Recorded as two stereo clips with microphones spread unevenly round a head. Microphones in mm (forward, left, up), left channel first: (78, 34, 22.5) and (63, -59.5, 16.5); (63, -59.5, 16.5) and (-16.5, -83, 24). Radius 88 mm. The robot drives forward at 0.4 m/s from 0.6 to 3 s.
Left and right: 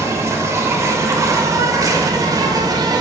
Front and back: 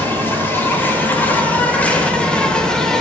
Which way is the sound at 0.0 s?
45° right.